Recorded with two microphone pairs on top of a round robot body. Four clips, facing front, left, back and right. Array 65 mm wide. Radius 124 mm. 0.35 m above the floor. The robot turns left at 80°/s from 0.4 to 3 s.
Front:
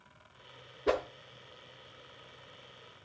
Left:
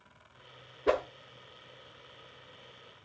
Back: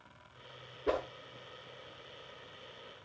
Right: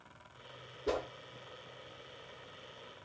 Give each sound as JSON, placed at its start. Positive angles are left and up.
{"t": 0.9, "sound": "a whoosh", "azimuth_deg": 80, "distance_m": 1.7}